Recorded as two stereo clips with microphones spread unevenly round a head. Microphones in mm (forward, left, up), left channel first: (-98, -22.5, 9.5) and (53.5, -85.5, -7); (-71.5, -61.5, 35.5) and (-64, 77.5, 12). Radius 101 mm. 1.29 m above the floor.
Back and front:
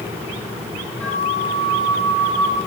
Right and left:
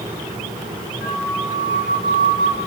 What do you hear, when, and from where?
1.0 s a flute: 115° right, 3 m